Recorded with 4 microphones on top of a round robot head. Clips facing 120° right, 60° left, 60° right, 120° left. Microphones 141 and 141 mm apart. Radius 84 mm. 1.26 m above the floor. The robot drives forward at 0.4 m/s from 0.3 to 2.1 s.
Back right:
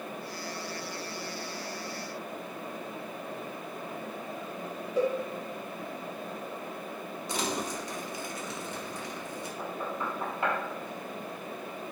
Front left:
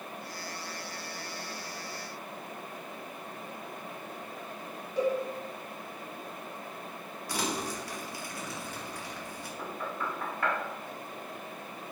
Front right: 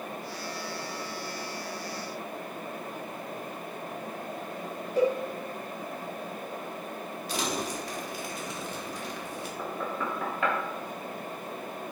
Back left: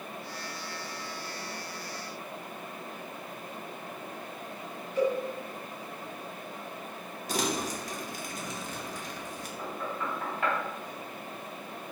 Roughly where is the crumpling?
Behind.